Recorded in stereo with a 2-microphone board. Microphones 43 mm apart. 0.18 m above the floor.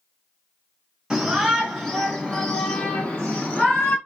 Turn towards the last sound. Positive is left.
turn(degrees=50)  # may be behind; listen again after turning